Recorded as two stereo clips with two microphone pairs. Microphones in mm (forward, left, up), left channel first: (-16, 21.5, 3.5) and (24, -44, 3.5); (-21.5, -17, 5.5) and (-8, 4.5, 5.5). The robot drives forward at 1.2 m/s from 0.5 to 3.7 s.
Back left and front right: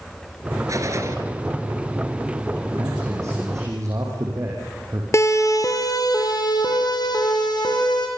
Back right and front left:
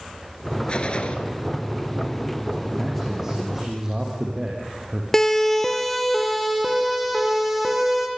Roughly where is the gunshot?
Right.